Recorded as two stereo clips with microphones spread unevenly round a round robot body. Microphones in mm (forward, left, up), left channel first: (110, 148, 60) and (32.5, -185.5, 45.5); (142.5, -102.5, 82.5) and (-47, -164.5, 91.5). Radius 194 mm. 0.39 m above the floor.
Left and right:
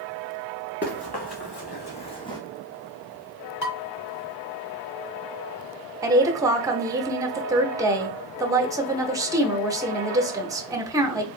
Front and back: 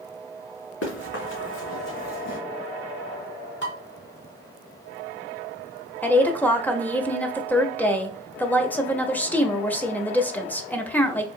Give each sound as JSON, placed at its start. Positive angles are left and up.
{"t": 0.8, "sound": "running footsteps", "azimuth_deg": 15, "distance_m": 2.5}
{"t": 3.6, "sound": "dishes clattering", "azimuth_deg": 45, "distance_m": 1.7}
{"t": 6.0, "sound": "a woman speaking", "azimuth_deg": -45, "distance_m": 0.8}